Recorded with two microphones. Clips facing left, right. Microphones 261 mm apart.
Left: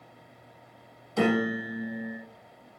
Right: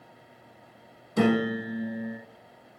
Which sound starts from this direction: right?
A piano, at 1.2 s.